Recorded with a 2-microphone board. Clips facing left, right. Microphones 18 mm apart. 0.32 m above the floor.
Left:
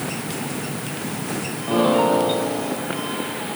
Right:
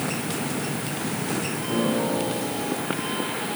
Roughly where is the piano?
Left.